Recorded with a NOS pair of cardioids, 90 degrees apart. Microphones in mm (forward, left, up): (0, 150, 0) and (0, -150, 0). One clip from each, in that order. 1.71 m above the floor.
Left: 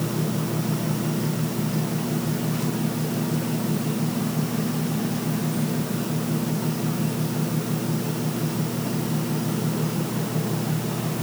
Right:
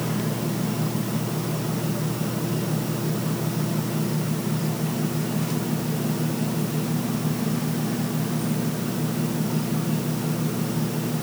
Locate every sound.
Only background noise.